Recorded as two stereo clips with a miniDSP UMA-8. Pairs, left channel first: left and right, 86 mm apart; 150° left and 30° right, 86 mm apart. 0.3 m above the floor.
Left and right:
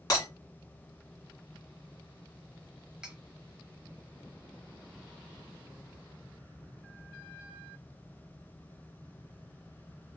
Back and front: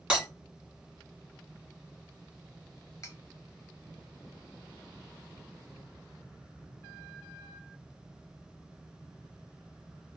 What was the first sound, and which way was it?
Breaking glass, 45° left.